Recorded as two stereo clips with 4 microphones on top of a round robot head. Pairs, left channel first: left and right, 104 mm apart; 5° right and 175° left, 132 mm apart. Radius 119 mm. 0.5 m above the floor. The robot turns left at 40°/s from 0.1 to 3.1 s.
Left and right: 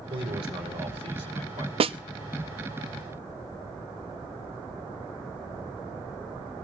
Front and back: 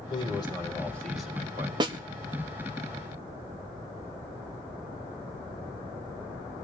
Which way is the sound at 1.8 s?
120° right.